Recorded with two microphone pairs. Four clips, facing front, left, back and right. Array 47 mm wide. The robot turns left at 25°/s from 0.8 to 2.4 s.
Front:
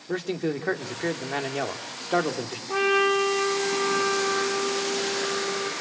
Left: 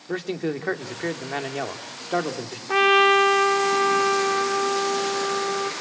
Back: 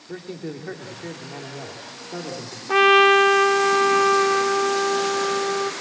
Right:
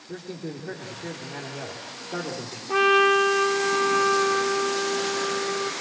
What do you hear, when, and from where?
0.1 s a man speaking: 60° left, 2.5 m; by 2.6 s 20° left, 2.5 m
2.7 s a trumpet: 145° left, 2 m